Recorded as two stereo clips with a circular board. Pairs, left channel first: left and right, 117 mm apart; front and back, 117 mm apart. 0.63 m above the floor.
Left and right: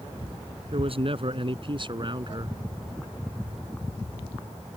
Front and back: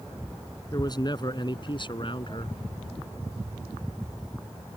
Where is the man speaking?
50° right; by 2.6 s 40° right.